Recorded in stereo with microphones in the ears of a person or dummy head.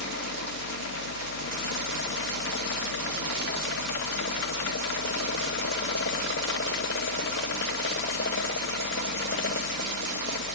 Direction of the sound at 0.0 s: 60° left (ahead or behind).